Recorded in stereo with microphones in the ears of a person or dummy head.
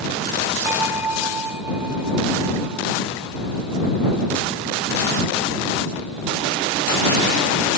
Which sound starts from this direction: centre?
A bell, at 0.7 s.